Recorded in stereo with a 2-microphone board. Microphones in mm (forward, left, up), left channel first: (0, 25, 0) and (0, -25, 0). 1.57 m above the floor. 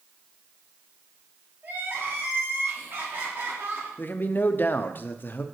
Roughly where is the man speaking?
Left.